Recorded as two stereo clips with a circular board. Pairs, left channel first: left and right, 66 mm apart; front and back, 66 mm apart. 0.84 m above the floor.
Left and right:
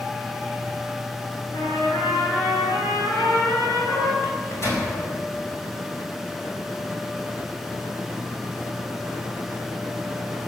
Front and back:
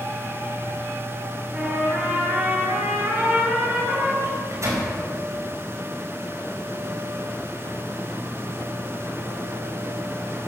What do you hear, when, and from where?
1.5 s a trumpet: 110° left, 6 m
4.2 s a microwave: 135° left, 4.5 m